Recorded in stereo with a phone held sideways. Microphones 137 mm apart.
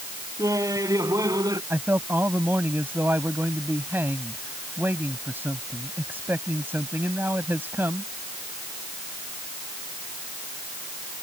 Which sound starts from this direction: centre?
A man speaking, at 1.7 s.